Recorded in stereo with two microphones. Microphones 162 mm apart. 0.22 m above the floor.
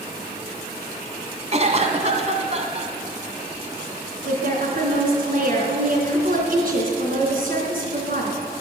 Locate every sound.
1.5 s a cough: 45° right (ahead or behind), 1.7 m
4.2 s a woman speaking: 60° right (ahead or behind), 3 m